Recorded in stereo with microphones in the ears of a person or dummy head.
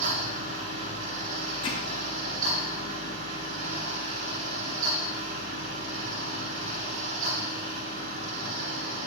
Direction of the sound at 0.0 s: 45° right (ahead or behind).